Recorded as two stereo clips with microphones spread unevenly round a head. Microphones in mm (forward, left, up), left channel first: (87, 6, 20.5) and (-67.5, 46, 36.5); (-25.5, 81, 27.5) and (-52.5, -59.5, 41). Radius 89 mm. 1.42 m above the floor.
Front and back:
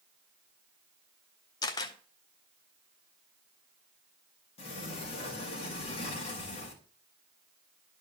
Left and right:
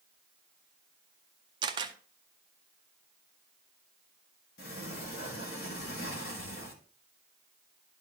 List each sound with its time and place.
1.6 s a camera shutter: 80° right, 0.5 m
4.6 s a sliding door: 40° left, 1.7 m